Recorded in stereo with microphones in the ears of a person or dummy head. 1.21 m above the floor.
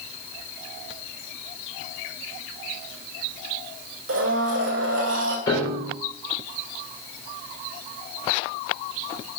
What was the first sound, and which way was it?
A blender, 75° right (ahead or behind).